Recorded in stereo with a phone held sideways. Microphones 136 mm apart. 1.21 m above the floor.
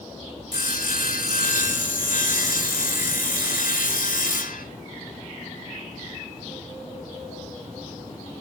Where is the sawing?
75° left (ahead or behind), 2.5 m.